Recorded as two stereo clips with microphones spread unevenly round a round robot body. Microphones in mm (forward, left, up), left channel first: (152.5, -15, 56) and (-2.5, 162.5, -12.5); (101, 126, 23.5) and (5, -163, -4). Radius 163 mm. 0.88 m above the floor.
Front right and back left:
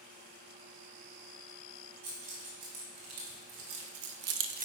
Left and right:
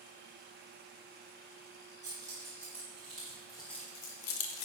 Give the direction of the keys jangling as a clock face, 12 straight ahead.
6 o'clock.